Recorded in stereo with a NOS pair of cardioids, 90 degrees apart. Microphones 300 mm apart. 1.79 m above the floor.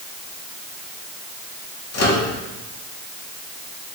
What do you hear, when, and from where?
1.9 s a microwave: 60° left, 3 m